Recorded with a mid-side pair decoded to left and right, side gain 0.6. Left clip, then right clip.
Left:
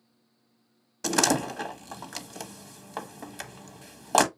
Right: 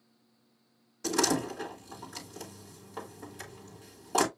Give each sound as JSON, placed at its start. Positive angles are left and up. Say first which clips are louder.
{"t": 1.0, "sound": "a door slam", "louder": "left 4 dB", "azimuth_deg": 55, "distance_m": 1.5}